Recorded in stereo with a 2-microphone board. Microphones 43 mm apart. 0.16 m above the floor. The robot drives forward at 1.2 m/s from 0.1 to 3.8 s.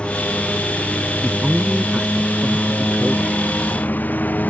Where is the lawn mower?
25° left (ahead or behind); by 4.5 s 45° left (ahead or behind).